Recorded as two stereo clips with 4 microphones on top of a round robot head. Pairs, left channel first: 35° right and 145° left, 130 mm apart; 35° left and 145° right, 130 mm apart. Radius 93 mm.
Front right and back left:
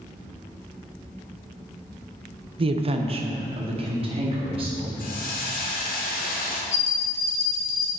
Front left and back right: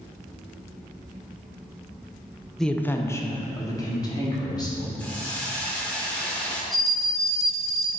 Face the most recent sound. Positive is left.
turn(degrees=-55)